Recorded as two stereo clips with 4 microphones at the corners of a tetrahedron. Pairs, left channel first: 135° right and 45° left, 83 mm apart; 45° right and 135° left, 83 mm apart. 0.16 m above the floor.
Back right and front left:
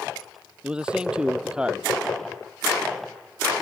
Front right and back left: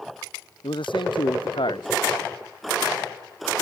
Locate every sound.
0.6 s a man speaking: 35° right